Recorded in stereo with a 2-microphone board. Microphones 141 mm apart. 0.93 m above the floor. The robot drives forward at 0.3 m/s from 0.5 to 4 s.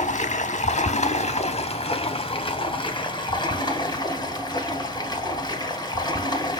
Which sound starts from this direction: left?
Running water, at 0.0 s.